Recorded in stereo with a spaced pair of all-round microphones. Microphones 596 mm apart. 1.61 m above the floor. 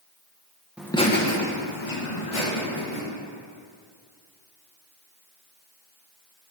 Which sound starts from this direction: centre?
Laughter, at 0.8 s.